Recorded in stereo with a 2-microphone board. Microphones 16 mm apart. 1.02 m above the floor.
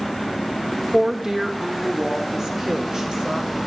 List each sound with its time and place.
0.9 s a woman speaking: 25° right (ahead or behind), 1.2 m; by 3.5 s 45° right (ahead or behind), 4.5 m